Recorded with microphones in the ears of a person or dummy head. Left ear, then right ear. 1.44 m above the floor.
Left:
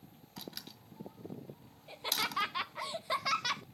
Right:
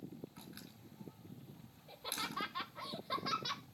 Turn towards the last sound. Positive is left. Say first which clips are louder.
# left 8 dB
turn(degrees=65)  # may be behind; listen again after turning